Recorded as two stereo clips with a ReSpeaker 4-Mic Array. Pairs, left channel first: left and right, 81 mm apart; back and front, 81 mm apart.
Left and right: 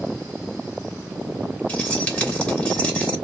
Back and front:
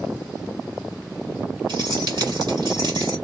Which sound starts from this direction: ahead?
Keys jangling, at 1.7 s.